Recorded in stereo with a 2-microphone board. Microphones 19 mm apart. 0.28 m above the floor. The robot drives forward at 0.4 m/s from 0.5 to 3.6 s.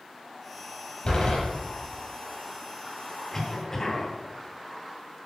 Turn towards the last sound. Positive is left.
turn(degrees=25)  # may be behind; listen again after turning